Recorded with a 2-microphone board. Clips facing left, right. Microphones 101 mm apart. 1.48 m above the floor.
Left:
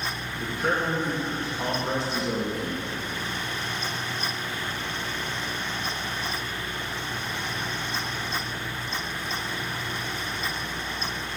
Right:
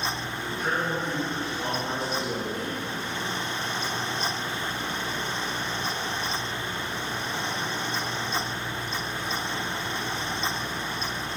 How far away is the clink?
I don't hear a clink.